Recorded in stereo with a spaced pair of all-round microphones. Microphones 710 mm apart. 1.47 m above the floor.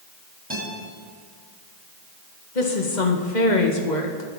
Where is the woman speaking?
90° left, 1.7 m.